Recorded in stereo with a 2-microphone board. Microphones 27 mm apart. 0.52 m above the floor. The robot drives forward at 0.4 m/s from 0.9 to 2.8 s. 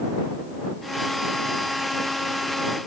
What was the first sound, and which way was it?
Only background noise.